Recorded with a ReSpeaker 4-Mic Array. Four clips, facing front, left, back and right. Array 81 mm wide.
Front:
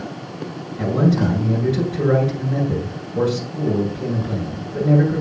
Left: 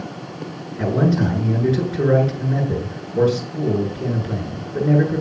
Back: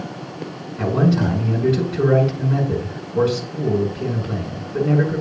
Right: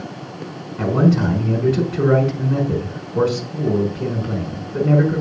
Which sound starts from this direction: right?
A man speaking, at 0.8 s.